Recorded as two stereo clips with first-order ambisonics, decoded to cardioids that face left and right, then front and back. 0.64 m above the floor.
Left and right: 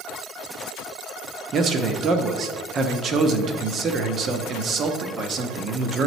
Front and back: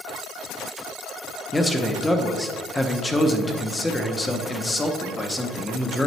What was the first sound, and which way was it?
A man speaking, 75° right.